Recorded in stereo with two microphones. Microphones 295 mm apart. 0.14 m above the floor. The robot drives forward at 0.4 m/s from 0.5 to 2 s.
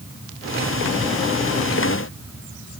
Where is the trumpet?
I don't hear a trumpet.